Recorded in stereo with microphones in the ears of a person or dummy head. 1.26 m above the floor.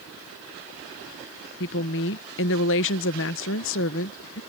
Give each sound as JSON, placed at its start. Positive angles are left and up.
{"t": 1.6, "sound": "a woman speaking", "side_deg": 60}